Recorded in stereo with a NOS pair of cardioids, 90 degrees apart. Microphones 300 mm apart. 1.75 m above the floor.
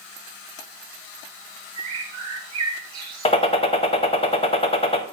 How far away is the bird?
About 1.0 m.